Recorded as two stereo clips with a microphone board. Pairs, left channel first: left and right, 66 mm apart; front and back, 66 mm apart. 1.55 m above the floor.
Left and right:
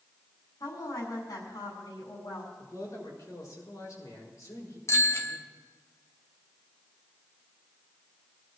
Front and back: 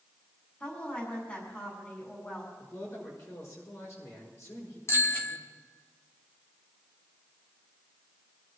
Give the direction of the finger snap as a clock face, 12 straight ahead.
I don't hear a finger snap.